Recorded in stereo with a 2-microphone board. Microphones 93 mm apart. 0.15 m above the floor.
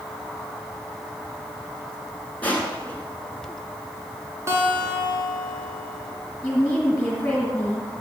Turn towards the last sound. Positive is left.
turn(degrees=20)  # may be behind; listen again after turning